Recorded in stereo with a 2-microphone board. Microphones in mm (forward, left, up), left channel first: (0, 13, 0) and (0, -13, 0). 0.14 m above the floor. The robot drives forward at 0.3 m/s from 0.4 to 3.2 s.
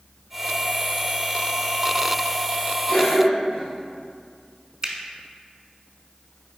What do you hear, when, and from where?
2.9 s a cough: 40° left (ahead or behind), 1.8 m
4.8 s a finger snap: 20° right (ahead or behind), 1.0 m